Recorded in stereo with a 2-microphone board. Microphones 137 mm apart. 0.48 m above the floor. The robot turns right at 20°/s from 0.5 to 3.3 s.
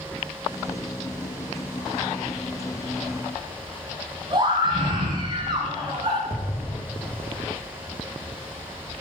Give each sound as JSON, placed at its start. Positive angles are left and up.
{"t": 4.3, "sound": "a scream", "side_deg": -35, "distance_m": 4.0}
{"t": 6.3, "sound": "an explosion", "side_deg": 25, "distance_m": 0.9}